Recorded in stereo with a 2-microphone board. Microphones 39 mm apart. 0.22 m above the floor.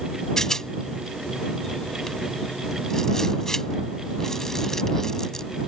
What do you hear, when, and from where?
0.4 s a rattle: 15° left (ahead or behind)